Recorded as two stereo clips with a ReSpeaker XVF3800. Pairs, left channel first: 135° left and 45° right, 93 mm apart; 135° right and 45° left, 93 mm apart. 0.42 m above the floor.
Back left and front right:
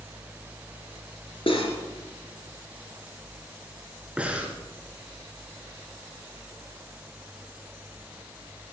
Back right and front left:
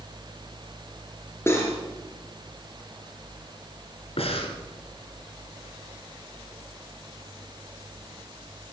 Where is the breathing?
120° right, 2.5 m.